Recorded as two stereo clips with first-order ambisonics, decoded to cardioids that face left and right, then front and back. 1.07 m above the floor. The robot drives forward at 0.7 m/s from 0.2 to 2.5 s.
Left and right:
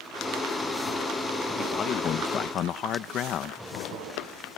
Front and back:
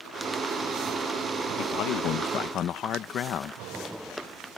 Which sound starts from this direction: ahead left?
A man speaking, at 1.6 s.